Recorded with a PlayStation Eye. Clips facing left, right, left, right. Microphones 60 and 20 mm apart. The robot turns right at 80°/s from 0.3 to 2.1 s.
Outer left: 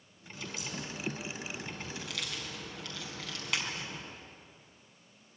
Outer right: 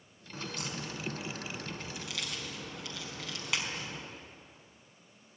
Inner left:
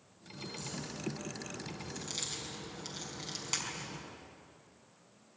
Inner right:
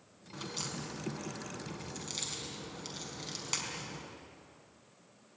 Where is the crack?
145° right, 4.5 m; by 4.0 s 5° right, 4.5 m.